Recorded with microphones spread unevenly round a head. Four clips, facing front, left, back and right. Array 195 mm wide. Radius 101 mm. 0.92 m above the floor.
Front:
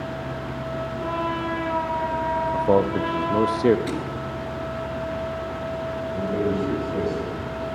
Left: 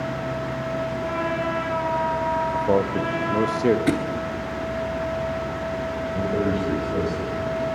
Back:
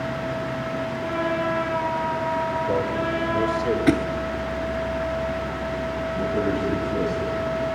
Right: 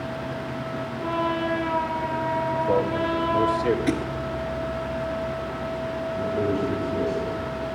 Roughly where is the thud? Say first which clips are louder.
Left 2 dB, back 9 dB; behind.